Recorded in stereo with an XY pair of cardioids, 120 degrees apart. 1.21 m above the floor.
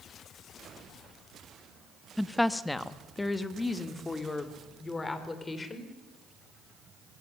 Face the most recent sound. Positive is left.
turn(degrees=25)